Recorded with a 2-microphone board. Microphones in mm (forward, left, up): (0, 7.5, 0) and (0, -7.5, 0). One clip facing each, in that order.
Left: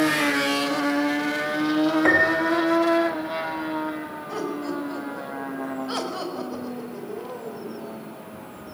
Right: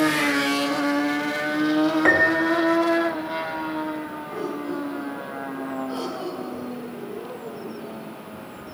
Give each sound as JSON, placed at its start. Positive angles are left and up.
{"t": 2.0, "sound": "a piano", "side_deg": -10, "distance_m": 2.5}
{"t": 4.3, "sound": "laughter", "side_deg": 50, "distance_m": 7.0}